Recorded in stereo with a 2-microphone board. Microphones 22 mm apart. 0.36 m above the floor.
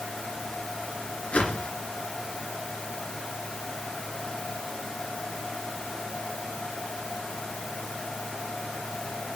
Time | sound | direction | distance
1.3 | a whoosh | 80° left | 2 m